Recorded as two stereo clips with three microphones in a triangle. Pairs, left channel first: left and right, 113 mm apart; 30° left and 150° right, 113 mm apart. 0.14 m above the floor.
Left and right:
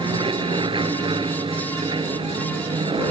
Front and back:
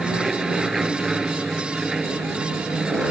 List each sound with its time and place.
0.0 s an aircraft: 65° right; by 3.1 s 70° right